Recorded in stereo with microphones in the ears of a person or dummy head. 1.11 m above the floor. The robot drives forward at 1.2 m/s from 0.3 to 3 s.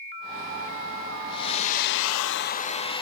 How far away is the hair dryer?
About 1.1 m.